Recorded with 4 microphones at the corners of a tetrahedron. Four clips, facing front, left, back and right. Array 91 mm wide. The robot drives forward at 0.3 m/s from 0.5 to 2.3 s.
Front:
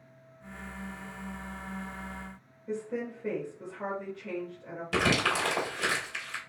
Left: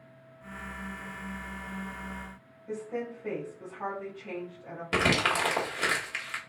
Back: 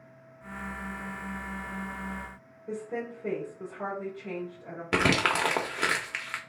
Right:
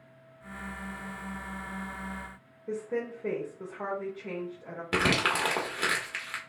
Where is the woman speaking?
120° right, 2.5 m.